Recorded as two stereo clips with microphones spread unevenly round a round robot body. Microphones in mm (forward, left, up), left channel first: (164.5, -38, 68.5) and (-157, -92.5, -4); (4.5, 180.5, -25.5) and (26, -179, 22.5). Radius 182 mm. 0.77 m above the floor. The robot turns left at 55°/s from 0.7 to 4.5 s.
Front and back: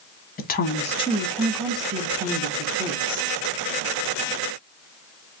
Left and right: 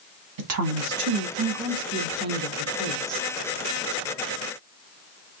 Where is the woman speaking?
55° right, 0.9 m; by 3.3 s 160° left, 0.9 m.